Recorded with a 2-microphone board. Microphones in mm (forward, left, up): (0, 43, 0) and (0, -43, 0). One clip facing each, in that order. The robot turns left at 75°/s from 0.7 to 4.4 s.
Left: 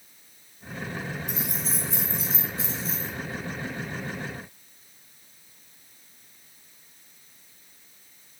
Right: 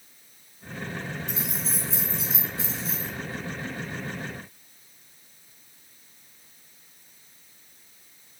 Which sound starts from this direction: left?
Keys jangling, at 1.3 s.